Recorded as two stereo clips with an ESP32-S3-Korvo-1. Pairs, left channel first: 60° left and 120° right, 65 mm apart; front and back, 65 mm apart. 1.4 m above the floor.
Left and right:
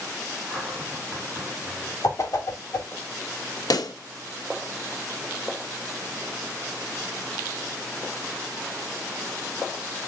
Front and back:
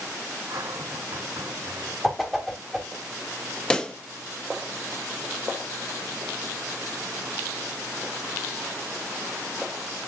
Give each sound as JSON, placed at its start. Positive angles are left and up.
{"t": 0.5, "sound": "a cupboard door", "azimuth_deg": 150, "distance_m": 8.5}
{"t": 2.0, "sound": "a whoosh", "azimuth_deg": 90, "distance_m": 2.5}
{"t": 3.7, "sound": "a pop", "azimuth_deg": 75, "distance_m": 1.1}